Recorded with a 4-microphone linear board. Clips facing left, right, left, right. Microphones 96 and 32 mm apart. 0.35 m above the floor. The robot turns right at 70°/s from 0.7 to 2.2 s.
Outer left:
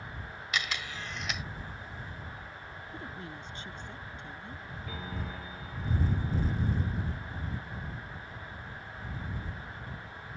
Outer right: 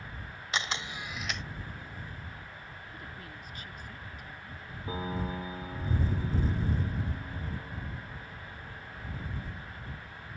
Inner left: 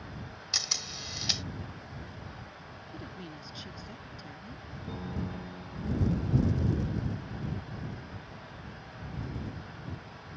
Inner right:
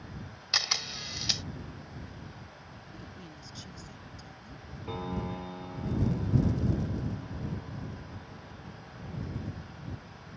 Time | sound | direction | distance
0.5 | a camera shutter | 40° right | ?
2.9 | a woman speaking | 25° left (ahead or behind) | ?
4.9 | a piano | 35° right (ahead or behind) | ?